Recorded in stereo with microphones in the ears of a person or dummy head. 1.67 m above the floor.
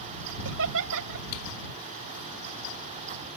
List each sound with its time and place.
0.5 s laughter: 70° right (ahead or behind)